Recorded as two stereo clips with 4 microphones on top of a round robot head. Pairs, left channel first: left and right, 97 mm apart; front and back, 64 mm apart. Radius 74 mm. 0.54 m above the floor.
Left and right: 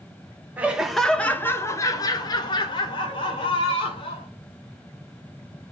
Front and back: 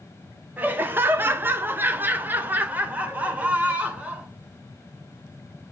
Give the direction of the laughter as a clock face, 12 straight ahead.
5 o'clock.